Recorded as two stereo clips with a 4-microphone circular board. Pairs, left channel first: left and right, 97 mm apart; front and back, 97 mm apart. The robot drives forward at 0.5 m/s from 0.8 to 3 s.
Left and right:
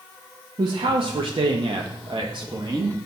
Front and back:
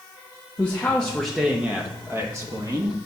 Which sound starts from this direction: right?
A man speaking, at 0.6 s.